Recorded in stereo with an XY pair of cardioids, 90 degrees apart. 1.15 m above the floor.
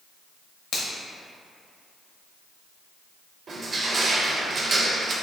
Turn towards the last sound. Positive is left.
turn(degrees=-55)